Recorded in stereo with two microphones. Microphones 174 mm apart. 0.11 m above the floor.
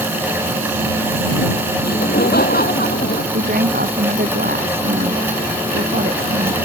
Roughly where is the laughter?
Left.